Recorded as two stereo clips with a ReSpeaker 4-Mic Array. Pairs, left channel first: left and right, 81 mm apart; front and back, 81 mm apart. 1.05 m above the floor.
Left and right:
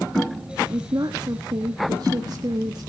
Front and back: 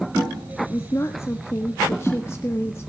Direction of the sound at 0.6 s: 55° right.